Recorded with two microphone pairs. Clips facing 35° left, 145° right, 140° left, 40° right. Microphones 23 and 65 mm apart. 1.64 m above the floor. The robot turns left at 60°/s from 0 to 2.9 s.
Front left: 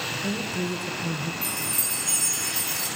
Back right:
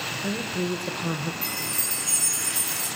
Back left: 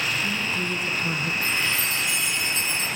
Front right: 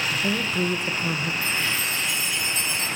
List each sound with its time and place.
0.1 s a woman speaking: 60° right, 1.6 m; by 1.3 s 130° right, 1.6 m
1.4 s a chime: 165° left, 7.5 m; by 2.9 s 80° left, 7.5 m